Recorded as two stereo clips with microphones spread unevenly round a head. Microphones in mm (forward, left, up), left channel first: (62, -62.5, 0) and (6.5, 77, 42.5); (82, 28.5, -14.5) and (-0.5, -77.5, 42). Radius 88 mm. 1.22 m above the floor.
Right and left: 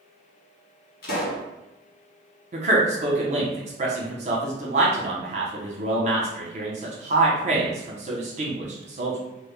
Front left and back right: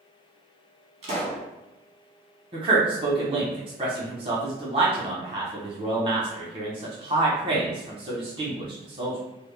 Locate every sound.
1.0 s a pop: 80° right, 1.0 m
2.5 s a man speaking: 165° left, 0.6 m